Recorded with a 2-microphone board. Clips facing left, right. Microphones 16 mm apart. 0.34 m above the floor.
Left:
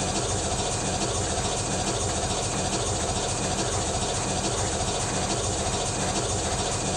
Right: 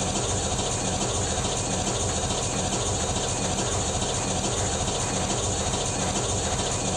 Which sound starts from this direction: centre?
An engine running, at 0.0 s.